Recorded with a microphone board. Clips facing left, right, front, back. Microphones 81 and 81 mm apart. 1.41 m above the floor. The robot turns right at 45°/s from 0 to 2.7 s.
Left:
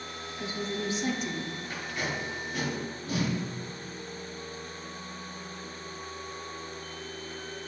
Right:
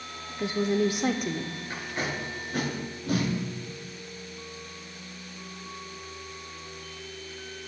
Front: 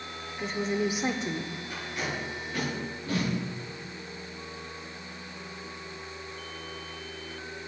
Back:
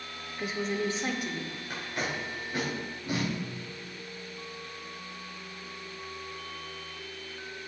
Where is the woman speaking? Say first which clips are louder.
Right 9 dB, front 2 dB; 100° right, 0.7 m; by 1.5 s 50° right, 0.7 m.